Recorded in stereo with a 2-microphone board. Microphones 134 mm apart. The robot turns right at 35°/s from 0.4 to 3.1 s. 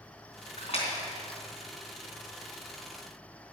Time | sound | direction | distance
0.6 | a splash | 55° left (ahead or behind) | 3 m